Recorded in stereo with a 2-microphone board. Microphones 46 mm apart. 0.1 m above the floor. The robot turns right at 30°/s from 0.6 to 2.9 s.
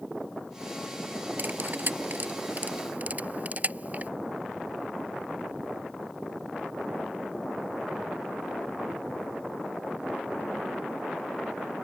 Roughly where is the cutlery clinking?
Right.